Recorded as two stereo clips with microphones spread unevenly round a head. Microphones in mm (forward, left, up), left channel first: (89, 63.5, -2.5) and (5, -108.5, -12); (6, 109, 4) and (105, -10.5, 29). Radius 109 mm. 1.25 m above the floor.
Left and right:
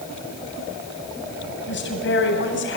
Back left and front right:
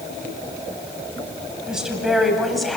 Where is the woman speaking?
35° left, 9 m; by 2.8 s 40° left, 9 m.